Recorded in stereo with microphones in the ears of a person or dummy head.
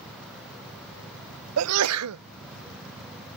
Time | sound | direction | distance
1.6 | a sneeze | 85° right | ?